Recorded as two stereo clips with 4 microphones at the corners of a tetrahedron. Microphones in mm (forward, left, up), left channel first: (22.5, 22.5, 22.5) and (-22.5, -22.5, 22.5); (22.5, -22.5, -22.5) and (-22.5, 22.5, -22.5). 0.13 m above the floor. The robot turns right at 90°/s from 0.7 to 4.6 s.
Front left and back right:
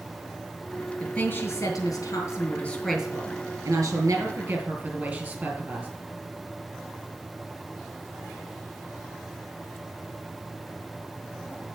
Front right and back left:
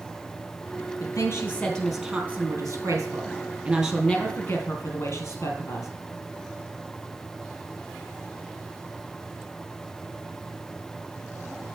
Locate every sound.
1.0 s a woman speaking: 35° right, 3 m; by 5.9 s 70° right, 3 m